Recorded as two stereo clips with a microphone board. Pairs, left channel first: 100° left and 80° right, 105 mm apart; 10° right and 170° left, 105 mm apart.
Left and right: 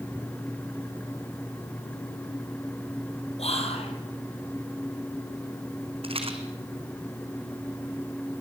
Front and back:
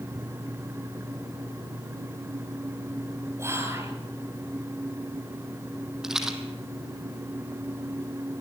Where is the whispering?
105° left, 4.5 m.